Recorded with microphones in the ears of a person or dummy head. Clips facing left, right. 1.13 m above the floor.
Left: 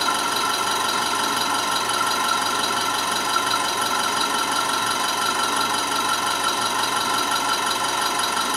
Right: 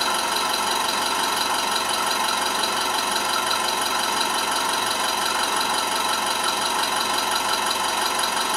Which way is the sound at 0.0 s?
45° right (ahead or behind).